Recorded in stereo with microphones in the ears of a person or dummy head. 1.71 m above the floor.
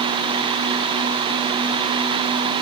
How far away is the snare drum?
No snare drum in this recording.